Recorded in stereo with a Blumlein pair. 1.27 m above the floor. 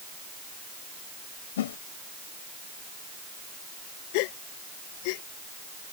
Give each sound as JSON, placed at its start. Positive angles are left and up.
{"t": 1.6, "sound": "a whoosh", "azimuth_deg": 60}
{"t": 4.1, "sound": "a gasp", "azimuth_deg": 45}